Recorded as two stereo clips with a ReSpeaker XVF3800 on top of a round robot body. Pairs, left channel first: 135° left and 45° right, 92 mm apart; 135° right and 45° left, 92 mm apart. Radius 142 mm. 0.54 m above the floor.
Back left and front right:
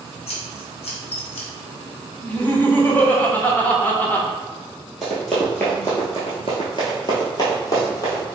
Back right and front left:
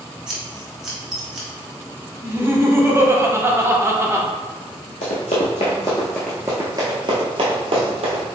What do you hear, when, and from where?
0.3 s scissors: 130° left, 0.9 m
2.2 s laughter: 80° left, 1.2 m
5.0 s running footsteps: 135° right, 0.8 m; by 8.2 s 75° left, 1.2 m